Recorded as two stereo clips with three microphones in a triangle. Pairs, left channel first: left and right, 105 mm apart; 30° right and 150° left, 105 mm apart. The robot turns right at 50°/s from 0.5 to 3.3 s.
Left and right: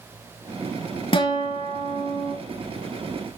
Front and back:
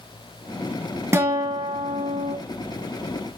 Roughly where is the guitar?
Left.